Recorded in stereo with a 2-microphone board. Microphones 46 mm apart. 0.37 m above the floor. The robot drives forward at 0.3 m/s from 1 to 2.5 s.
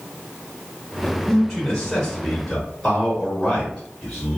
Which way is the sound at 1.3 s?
15° left (ahead or behind).